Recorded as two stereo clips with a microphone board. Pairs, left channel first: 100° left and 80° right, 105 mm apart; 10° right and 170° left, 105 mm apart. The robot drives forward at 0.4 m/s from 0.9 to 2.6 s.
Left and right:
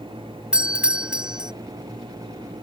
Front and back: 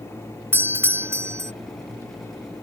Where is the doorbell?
150° right; by 1.5 s 155° right.